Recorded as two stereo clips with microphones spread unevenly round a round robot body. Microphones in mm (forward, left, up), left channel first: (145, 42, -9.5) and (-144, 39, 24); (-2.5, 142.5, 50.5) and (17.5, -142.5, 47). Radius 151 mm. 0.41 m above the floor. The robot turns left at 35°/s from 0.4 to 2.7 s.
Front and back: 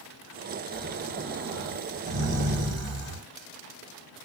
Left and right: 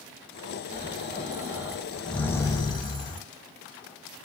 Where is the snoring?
130° right, 1.3 m; by 3.2 s 160° left, 1.3 m.